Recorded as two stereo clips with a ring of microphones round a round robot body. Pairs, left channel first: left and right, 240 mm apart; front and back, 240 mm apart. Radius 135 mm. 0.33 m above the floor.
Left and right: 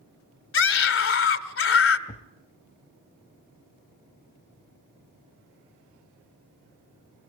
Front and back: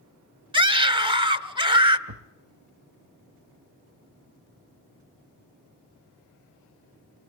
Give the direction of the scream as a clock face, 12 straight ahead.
8 o'clock.